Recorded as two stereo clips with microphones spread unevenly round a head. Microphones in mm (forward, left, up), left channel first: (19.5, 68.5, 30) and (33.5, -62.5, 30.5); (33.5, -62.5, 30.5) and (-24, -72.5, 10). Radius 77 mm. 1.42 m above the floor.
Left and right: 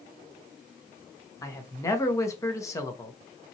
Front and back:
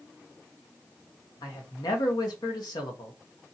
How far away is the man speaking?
About 0.8 m.